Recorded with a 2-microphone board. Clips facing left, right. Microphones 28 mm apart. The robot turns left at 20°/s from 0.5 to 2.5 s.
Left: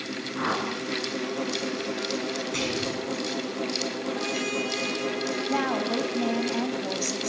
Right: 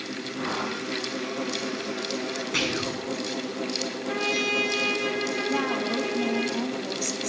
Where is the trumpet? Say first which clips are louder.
Right 6 dB; 40° right (ahead or behind), 6.5 m.